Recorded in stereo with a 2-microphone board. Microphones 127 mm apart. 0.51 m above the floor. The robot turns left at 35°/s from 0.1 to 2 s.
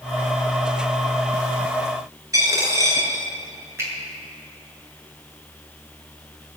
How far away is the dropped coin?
About 3.5 m.